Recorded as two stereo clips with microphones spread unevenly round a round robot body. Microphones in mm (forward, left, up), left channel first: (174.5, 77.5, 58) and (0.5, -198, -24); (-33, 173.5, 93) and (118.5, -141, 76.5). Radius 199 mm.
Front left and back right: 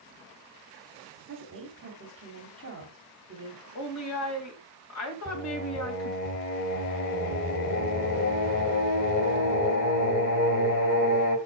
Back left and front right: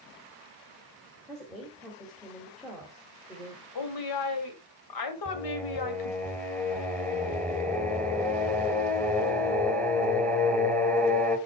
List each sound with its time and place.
1.3 s a woman speaking: 155° right, 2 m
3.8 s a woman speaking: 110° left, 2 m
5.2 s singing: 30° left, 1.9 m